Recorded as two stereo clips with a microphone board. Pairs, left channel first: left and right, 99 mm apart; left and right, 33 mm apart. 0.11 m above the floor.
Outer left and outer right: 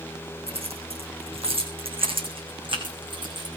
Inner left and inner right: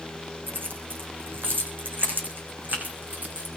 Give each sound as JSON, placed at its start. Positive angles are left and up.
{"t": 0.5, "sound": "keys jangling", "side_deg": -80, "distance_m": 5.5}